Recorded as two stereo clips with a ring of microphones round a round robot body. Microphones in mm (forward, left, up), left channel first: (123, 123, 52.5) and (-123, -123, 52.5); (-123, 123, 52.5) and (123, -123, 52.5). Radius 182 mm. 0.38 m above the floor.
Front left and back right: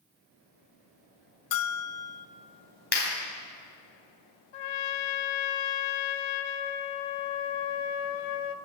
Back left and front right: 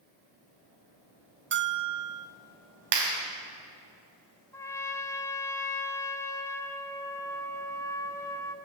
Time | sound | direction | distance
1.5 | a bell | 15° left | 0.8 m
2.9 | a clap | 15° right | 3 m
4.5 | a trumpet | 50° left | 0.7 m